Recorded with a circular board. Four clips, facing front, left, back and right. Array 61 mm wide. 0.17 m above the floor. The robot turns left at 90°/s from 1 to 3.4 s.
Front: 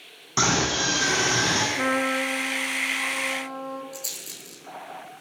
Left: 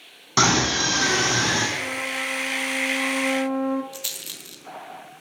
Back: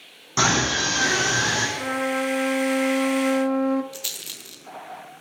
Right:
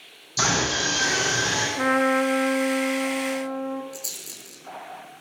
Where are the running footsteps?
I don't hear running footsteps.